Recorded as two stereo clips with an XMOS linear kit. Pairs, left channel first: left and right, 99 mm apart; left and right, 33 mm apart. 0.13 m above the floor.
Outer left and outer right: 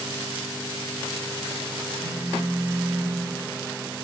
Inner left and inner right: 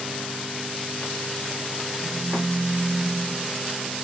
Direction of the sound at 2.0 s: 20° right (ahead or behind).